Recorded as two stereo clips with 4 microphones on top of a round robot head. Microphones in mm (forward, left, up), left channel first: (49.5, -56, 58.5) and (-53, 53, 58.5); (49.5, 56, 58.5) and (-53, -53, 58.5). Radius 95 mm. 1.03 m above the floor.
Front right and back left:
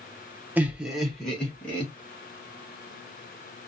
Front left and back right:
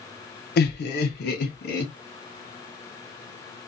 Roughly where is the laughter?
Ahead left.